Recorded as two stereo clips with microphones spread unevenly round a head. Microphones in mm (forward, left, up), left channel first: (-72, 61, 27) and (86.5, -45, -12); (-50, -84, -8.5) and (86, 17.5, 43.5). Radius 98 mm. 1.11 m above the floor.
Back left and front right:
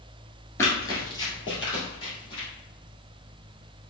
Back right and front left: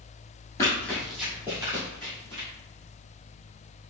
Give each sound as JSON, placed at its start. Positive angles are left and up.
{"t": 0.6, "sound": "running footsteps", "azimuth_deg": 125, "distance_m": 1.1}